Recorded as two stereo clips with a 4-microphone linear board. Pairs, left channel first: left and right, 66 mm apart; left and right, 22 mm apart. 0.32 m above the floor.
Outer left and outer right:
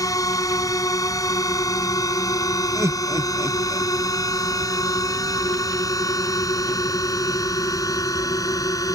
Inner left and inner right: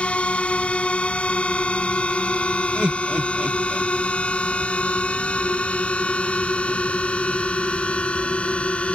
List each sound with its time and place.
0.0 s a drone: 60° left (ahead or behind)
2.8 s laughter: 50° right (ahead or behind)